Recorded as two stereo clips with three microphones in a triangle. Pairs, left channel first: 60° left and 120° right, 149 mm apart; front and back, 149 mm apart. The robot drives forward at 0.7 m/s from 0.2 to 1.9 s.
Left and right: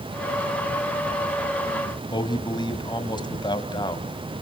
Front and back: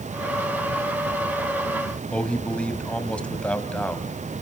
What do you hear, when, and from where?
2.1 s a man speaking: 75° left, 1.3 m